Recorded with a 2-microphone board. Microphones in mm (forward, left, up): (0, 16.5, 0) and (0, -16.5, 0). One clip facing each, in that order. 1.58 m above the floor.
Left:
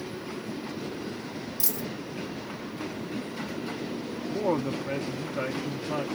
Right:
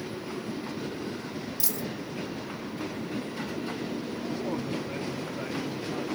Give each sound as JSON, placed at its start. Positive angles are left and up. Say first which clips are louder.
{"t": 1.6, "sound": "a dropped coin", "louder": "left 1 dB", "side_deg": 0, "distance_m": 1.7}
{"t": 4.3, "sound": "a woman speaking", "louder": "left 7 dB", "side_deg": 75, "distance_m": 1.2}